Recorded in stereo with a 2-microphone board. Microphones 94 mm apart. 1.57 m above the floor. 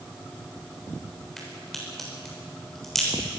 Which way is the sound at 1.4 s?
5° left (ahead or behind).